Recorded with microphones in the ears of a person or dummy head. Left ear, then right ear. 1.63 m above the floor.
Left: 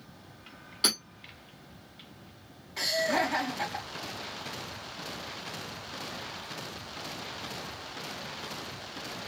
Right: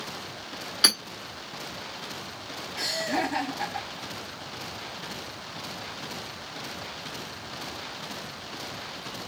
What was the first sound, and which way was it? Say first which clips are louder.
Hammering: right 6 dB; 10° right (ahead or behind).